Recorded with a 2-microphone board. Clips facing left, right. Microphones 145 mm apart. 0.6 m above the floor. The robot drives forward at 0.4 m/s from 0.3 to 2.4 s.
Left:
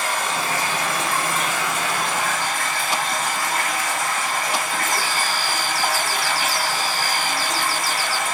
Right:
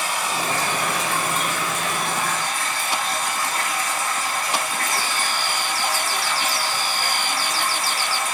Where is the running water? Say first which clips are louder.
Left 1 dB; 60° left (ahead or behind), 1.2 m.